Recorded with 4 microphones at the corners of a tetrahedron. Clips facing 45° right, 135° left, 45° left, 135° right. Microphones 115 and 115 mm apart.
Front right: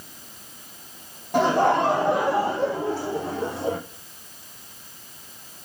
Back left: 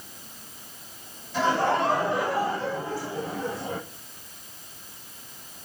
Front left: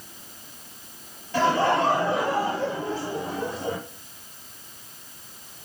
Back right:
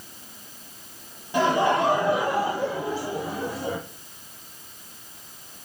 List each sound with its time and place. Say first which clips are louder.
1.3 s laughter: front right 4 dB, even; 60° right, 5 m; by 3.8 s 50° right, 6 m